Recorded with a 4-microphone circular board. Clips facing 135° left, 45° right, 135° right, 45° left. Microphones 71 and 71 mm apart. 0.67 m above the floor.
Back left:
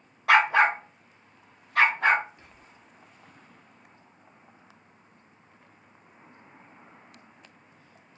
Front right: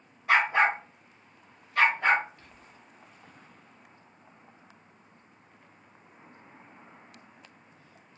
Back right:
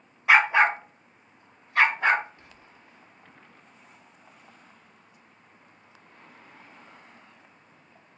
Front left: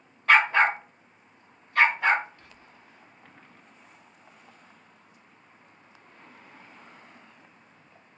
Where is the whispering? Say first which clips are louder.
Even, even; straight behind, 0.7 m.